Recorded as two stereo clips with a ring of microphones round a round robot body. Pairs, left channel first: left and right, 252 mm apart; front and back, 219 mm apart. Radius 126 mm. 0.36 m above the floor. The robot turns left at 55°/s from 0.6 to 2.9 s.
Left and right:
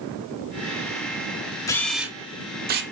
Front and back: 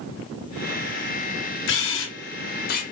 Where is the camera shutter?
15° left, 0.6 m; by 2.8 s 50° right, 0.6 m.